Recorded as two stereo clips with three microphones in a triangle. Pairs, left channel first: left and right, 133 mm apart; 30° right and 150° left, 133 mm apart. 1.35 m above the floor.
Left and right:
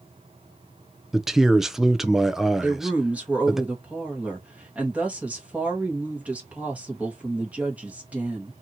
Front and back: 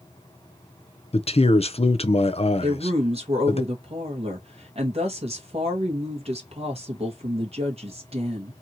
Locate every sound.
1.1 s a man speaking: 5° right, 0.7 m
2.6 s a woman speaking: 170° right, 1.6 m